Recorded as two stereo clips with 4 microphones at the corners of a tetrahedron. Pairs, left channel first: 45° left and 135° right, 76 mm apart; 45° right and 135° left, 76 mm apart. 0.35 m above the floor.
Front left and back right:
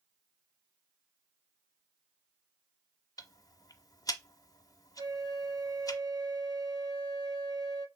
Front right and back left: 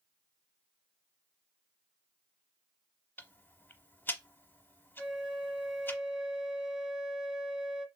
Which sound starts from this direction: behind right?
A flute, at 5.0 s.